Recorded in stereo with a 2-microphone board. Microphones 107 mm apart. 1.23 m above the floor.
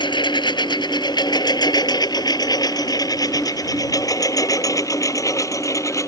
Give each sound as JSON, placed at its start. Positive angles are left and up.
{"t": 0.0, "sound": "a lawn mower", "side_deg": 45}